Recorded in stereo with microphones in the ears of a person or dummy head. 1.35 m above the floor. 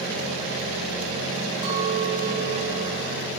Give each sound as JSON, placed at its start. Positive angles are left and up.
{"t": 1.6, "sound": "a clink", "side_deg": -30, "distance_m": 9.5}